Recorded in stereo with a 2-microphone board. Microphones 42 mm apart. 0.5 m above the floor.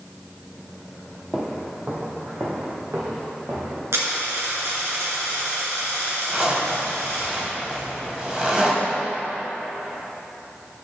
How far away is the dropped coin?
About 3 m.